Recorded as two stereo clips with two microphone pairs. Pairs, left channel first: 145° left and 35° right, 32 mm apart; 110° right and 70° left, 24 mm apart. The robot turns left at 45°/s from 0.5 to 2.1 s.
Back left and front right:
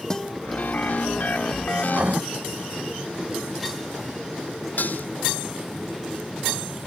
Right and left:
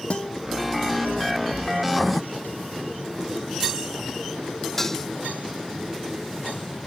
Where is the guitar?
145° right.